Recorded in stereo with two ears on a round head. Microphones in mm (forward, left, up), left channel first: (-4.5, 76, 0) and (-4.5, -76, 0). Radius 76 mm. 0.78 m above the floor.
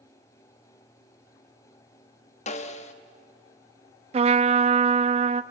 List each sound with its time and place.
2.5 s a snare drum: 40° left (ahead or behind), 1.2 m
4.1 s a trumpet: 35° right (ahead or behind), 0.6 m